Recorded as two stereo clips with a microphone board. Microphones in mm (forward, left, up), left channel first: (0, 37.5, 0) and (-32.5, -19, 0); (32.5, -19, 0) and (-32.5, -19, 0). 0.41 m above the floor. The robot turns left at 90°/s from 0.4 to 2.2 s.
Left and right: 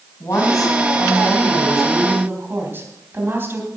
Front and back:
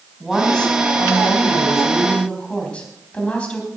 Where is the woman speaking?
95° left, 3.5 m; by 3.7 s 70° right, 3.5 m.